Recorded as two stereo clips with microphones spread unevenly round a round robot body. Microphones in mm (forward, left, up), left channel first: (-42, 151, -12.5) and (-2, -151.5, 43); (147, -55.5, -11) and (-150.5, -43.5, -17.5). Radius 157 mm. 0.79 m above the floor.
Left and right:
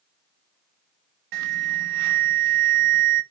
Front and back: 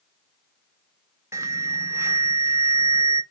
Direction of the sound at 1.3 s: 100° right.